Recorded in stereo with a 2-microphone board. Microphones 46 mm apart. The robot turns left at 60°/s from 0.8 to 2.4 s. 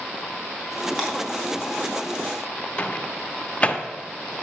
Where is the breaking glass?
10° right (ahead or behind), 3 m; by 1.1 s 20° right (ahead or behind), 3 m.